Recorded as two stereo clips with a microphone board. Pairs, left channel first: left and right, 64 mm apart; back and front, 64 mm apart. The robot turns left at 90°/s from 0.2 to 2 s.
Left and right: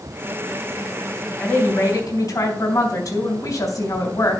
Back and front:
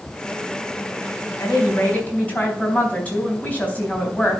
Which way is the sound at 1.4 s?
170° left.